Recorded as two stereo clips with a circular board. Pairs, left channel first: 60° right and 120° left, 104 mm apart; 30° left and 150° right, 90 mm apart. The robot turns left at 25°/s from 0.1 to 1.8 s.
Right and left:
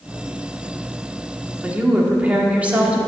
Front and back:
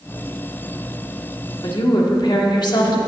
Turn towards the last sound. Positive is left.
turn(degrees=45)